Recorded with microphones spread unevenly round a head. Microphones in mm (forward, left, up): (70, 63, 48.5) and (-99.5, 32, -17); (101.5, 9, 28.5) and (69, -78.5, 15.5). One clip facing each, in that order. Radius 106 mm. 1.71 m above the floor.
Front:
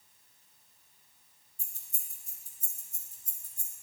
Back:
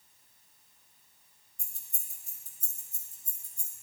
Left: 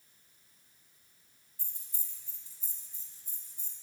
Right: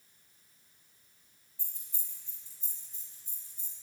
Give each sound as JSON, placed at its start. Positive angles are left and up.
{"t": 1.6, "sound": "keys jangling", "azimuth_deg": -135, "distance_m": 2.5}